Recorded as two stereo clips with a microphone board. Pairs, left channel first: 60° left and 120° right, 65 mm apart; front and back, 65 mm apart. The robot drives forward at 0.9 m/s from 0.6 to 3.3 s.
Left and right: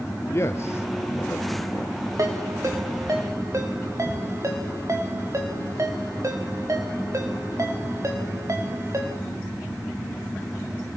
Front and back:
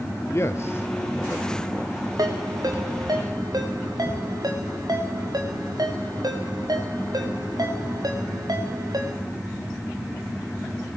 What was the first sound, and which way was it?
A man speaking, 30° left.